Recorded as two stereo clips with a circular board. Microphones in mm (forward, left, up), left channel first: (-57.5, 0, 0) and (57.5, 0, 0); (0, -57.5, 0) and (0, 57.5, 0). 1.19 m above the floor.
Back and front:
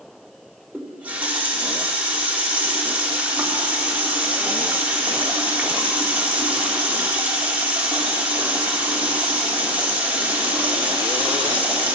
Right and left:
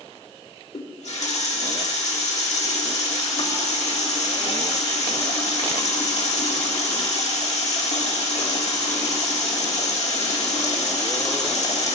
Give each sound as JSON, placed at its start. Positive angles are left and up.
{"t": 0.7, "sound": "a running tap", "azimuth_deg": -75, "distance_m": 1.8}